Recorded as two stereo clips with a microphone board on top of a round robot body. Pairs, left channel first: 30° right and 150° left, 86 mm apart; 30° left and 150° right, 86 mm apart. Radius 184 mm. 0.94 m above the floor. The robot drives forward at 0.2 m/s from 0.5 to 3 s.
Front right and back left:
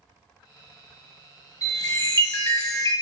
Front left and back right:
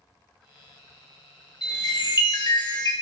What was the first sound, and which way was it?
A chime, 15° left.